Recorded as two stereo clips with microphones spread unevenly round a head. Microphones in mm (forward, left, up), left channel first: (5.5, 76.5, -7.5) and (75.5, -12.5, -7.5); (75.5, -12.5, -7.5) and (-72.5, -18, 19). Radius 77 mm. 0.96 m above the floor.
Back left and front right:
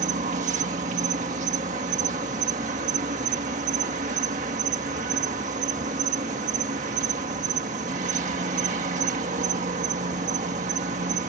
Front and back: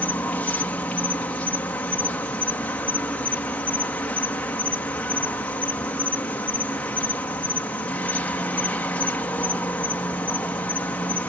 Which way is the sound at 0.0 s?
75° right.